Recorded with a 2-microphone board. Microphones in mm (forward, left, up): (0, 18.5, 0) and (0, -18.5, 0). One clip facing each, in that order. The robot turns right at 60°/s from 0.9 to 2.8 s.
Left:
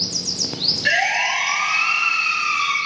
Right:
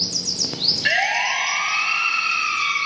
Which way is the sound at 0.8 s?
10° right (ahead or behind).